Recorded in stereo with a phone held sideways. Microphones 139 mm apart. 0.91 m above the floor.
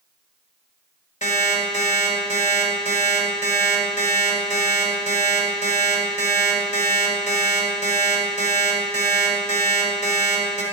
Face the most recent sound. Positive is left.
turn(degrees=60)  # may be behind; listen again after turning